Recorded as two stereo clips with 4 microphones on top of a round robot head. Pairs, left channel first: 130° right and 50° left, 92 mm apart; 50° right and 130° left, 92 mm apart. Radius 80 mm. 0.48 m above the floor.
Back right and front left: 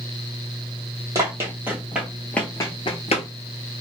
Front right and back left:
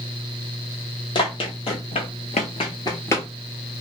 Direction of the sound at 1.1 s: 10° right.